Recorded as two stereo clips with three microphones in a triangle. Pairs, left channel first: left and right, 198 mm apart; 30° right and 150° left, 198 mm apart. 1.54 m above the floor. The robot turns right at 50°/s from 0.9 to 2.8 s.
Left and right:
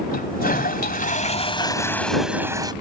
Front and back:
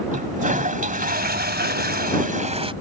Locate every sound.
0.1 s a toilet flushing: 115° left; by 2.7 s 155° right